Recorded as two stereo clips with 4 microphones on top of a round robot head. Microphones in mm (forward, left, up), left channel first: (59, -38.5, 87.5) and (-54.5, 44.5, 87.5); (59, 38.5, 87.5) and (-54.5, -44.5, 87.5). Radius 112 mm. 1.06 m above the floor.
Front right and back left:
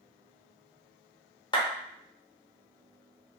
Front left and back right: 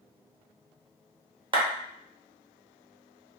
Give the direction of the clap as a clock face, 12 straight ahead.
3 o'clock.